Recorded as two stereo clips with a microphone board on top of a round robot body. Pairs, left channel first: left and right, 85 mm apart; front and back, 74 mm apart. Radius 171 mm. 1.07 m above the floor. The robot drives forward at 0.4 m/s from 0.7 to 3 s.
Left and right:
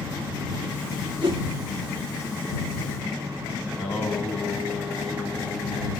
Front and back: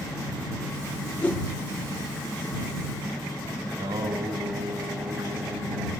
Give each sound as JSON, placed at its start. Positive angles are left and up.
{"t": 1.2, "sound": "a whoosh", "azimuth_deg": -70, "distance_m": 4.0}
{"t": 3.7, "sound": "singing", "azimuth_deg": 175, "distance_m": 6.0}